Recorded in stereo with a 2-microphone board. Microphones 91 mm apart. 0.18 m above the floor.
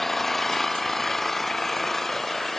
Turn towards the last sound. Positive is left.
turn(degrees=5)  # may be behind; listen again after turning